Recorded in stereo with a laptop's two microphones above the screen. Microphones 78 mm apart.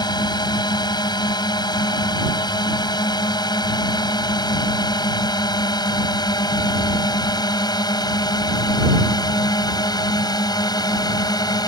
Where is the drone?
65° left (ahead or behind); by 11.7 s 60° left (ahead or behind).